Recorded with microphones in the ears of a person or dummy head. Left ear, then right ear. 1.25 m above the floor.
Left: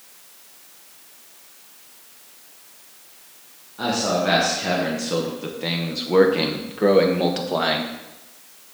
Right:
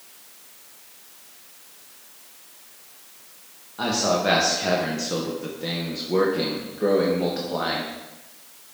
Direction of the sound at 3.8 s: 25° right (ahead or behind).